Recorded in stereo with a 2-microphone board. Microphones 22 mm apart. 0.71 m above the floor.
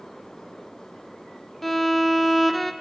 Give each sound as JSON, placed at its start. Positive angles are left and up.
{"t": 1.6, "sound": "a violin", "side_deg": 5, "distance_m": 1.1}